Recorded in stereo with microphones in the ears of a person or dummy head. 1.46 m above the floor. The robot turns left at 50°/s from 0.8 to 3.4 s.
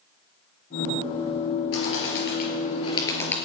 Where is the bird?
90° left, 5 m; by 3.4 s 5° left, 5 m.